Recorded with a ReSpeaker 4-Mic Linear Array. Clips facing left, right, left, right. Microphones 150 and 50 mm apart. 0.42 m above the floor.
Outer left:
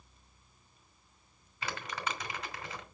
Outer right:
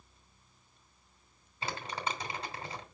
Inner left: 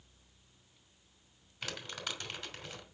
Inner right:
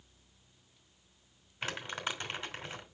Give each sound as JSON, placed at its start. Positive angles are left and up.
{"t": 1.6, "sound": "crumpling", "side_deg": -30, "distance_m": 3.0}